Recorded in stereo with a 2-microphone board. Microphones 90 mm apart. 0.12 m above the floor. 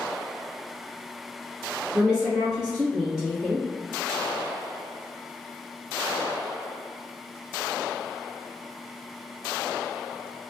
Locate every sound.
1.9 s a woman speaking: 10° right (ahead or behind), 1.8 m